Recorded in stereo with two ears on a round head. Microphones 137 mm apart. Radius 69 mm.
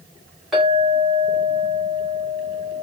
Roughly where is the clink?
Centre.